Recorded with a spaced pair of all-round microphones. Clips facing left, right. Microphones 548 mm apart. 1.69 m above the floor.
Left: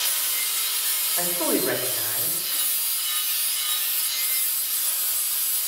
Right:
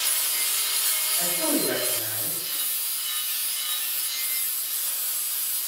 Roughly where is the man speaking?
Left.